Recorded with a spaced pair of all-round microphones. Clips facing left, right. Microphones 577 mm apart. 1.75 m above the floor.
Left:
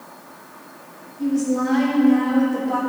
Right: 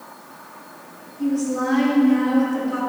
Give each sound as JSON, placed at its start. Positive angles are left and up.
{"t": 1.2, "sound": "a woman speaking", "side_deg": 45, "distance_m": 2.5}